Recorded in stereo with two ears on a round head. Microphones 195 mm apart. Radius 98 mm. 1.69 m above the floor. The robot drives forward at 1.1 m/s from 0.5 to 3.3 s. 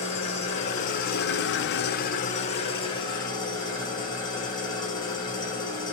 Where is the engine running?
30° left (ahead or behind), 1.5 m; by 5.9 s 20° left (ahead or behind), 2 m.